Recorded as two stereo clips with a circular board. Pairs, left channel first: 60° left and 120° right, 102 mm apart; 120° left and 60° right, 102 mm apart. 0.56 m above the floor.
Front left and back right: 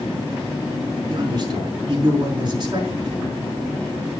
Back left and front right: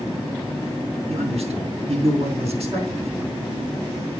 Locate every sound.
1.1 s a man speaking: 70° right, 4.5 m